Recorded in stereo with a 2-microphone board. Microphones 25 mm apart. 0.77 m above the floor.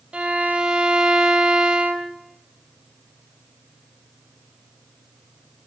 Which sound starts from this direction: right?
A violin, at 0.1 s.